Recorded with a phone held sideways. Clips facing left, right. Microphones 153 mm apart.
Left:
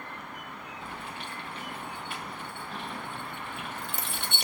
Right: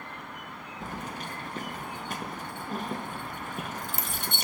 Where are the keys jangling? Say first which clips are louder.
Right 5 dB; 40° right (ahead or behind), 0.5 m.